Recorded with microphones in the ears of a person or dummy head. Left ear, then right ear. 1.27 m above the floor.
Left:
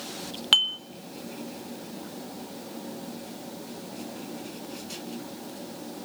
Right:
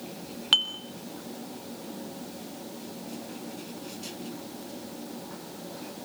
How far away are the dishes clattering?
About 1.6 m.